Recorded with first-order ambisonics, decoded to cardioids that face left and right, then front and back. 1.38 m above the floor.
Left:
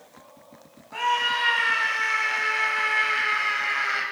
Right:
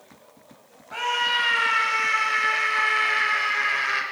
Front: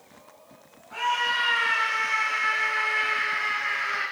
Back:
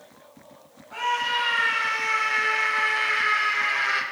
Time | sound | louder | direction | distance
0.9 | a scream | even, even | 95° right | 8 m